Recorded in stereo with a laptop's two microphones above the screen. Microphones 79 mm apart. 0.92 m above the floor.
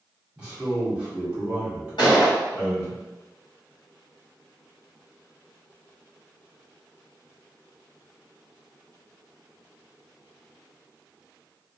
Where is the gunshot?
70° left (ahead or behind), 1.7 m.